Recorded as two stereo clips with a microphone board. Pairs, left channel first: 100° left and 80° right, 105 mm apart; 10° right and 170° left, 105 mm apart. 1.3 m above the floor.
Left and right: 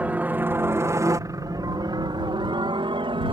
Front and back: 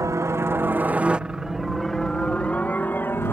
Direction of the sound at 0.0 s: 150° right.